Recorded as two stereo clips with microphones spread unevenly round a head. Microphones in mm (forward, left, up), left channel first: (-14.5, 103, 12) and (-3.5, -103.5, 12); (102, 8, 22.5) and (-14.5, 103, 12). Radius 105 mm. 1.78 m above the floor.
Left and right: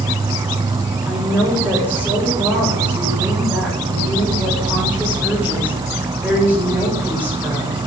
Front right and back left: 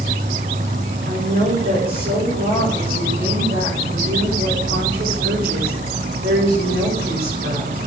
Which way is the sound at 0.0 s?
160° right.